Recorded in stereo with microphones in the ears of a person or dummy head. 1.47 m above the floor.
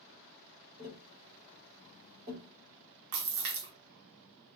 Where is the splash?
70° right (ahead or behind), 0.7 m.